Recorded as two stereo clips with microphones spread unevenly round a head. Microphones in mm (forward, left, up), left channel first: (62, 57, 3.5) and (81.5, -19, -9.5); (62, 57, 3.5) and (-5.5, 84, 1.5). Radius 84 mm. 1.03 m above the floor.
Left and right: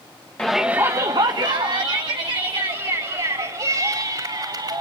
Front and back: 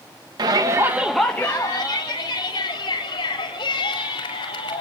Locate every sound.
0.4 s a shout: 170° right, 1.2 m; by 4.8 s 55° right, 5 m